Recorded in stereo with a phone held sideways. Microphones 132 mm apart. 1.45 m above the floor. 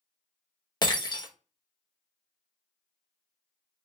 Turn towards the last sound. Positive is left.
turn(degrees=30)  # may be behind; listen again after turning